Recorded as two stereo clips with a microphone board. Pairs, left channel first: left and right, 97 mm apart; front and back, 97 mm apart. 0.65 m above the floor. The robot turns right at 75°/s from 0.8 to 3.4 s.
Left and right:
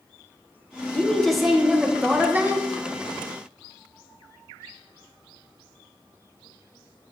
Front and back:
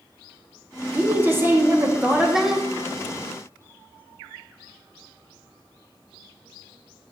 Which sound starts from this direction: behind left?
A woman speaking, at 0.9 s.